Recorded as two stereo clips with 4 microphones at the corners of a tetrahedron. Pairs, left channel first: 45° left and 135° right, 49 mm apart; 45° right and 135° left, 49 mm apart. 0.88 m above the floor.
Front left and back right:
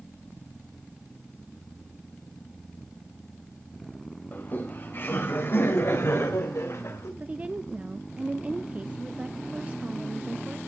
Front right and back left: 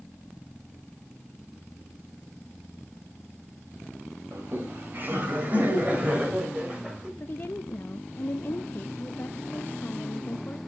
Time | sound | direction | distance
4.3 | laughter | 100° left | 5 m
7.2 | a woman speaking | 80° right | 0.6 m